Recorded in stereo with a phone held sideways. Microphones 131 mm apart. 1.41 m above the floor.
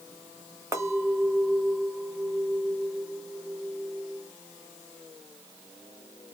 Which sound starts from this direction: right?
A clink, at 0.7 s.